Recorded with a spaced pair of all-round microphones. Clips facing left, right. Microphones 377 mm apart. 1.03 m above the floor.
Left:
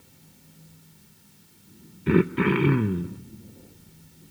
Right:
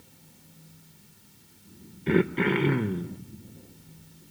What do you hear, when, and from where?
2.1 s throat clearing: 20° left (ahead or behind), 0.8 m